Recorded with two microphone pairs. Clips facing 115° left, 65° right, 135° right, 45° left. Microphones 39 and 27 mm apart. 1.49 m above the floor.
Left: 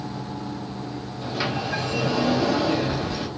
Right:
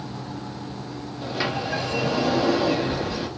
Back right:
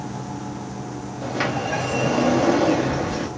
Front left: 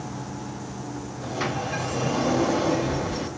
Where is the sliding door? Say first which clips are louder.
Even, back right 4 dB; 140° right, 1.0 m.